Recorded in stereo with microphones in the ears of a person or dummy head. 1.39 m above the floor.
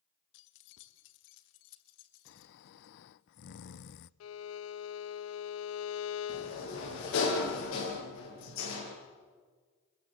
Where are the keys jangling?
70° left (ahead or behind), 1.4 m; by 2.9 s 85° left, 3 m.